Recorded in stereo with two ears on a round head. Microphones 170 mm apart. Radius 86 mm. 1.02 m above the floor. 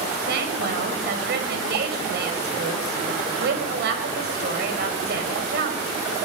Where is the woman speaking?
60° right (ahead or behind), 6.5 m.